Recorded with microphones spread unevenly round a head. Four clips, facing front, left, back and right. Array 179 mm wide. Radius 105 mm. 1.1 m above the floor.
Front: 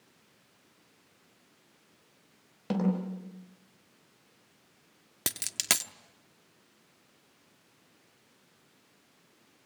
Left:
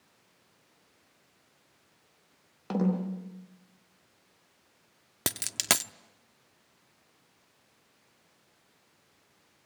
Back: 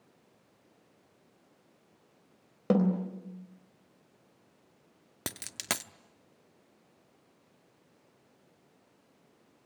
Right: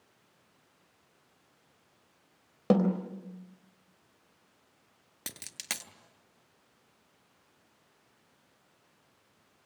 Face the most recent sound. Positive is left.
turn(degrees=80)